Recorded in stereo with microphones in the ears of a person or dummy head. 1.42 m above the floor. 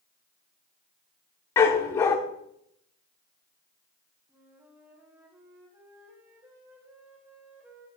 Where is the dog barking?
15° left (ahead or behind), 1.1 m.